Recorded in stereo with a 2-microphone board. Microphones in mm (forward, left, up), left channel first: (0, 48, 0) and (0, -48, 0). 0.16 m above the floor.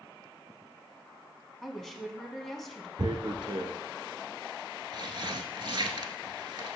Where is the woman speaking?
5° left (ahead or behind), 1.1 m.